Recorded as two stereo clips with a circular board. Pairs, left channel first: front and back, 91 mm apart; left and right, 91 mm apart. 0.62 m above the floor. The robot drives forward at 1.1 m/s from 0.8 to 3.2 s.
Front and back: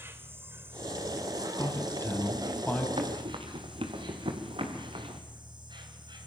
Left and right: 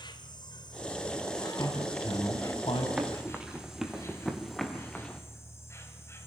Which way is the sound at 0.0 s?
120° left.